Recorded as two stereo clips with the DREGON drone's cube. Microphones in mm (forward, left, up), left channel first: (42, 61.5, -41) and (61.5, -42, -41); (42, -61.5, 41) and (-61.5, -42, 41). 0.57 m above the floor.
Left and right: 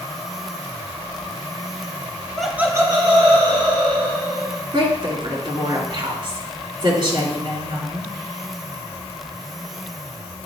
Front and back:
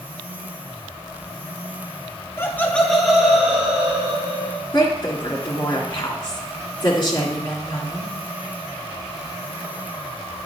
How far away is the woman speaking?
About 1.9 m.